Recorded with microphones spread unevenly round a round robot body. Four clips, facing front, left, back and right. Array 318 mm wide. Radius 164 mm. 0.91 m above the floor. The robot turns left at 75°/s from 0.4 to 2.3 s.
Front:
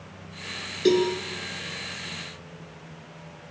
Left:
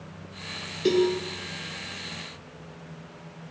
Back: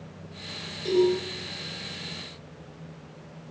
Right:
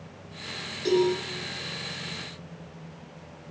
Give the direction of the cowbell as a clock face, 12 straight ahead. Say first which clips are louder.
Left 1 dB, front 1 dB; 11 o'clock.